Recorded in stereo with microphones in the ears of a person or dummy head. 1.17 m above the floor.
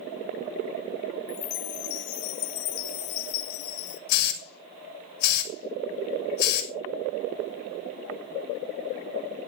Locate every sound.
1.3 s a chime: 75° left (ahead or behind), 2.0 m
4.1 s a hiss: 60° left (ahead or behind), 2.5 m